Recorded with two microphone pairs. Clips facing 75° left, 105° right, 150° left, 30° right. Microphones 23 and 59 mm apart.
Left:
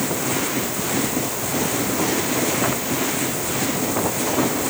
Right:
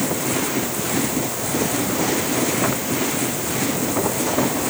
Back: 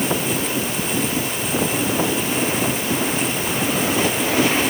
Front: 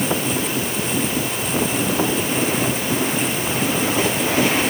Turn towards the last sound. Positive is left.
No sound to turn to.